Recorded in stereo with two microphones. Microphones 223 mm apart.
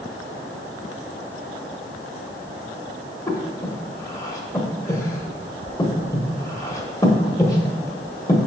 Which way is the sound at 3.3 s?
15° left (ahead or behind).